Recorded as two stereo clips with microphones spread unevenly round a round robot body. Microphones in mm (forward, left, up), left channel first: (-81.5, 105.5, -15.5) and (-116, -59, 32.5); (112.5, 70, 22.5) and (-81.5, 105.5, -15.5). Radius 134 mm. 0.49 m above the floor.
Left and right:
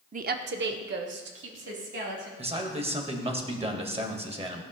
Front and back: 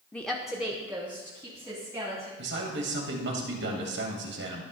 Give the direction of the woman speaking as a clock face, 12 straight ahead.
4 o'clock.